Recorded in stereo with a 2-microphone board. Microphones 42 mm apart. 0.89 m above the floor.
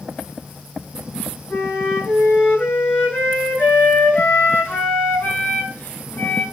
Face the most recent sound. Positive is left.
turn(degrees=45)  # may be behind; listen again after turning